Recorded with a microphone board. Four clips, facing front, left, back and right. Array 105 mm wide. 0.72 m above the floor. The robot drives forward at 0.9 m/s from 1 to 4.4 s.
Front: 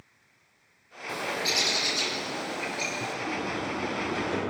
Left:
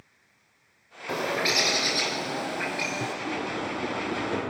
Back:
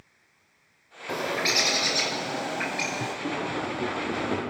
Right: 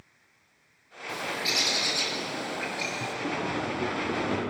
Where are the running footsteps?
140° right, 8.5 m; by 4.4 s 135° right, 10 m.